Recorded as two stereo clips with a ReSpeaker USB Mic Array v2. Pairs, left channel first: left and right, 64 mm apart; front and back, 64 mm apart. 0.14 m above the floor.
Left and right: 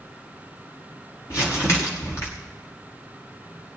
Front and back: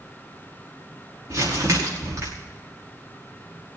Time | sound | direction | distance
1.3 | crumpling | 135° left | 5.5 m